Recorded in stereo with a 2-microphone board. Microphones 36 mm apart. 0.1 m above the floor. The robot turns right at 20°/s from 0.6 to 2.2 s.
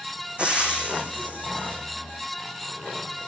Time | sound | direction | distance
0.4 | frying | 35° right (ahead or behind) | 1.8 m